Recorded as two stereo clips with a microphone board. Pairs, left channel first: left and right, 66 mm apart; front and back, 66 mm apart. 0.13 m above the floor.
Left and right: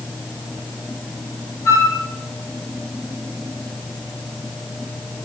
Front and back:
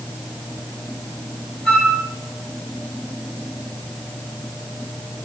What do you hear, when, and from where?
1.6 s a flute: 75° left, 2.5 m